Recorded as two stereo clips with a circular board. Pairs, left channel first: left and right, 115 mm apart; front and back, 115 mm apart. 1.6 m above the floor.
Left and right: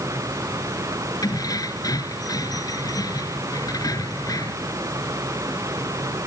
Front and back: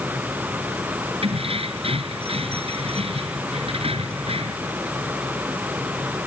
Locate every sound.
1.2 s keys jangling: 145° left